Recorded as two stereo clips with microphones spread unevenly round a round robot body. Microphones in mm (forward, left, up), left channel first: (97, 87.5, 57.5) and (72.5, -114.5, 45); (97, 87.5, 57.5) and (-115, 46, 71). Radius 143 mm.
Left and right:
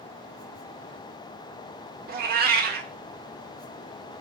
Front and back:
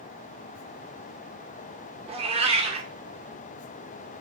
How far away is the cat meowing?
About 0.6 m.